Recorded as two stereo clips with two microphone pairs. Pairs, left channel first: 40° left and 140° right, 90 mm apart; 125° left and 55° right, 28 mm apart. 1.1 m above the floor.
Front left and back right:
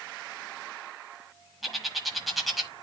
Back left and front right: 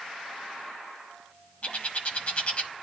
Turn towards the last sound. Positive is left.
turn(degrees=130)